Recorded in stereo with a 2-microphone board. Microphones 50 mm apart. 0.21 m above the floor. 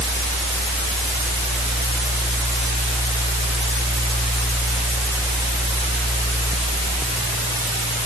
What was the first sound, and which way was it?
Only background noise.